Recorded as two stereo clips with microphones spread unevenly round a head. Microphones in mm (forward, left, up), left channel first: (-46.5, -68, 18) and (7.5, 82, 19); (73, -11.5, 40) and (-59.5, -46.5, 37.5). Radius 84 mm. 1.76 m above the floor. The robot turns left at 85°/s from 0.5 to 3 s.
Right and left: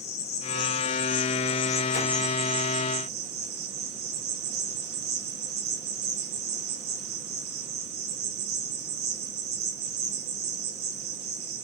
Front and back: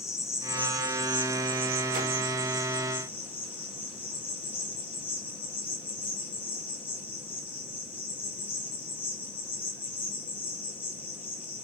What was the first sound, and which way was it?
An insect, 55° right.